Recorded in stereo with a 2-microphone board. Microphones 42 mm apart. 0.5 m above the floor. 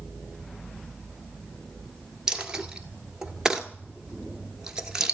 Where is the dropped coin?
15° right (ahead or behind), 1.3 m.